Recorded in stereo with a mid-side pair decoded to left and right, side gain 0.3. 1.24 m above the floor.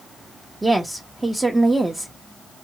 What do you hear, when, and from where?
0.6 s a woman speaking: 20° right, 0.9 m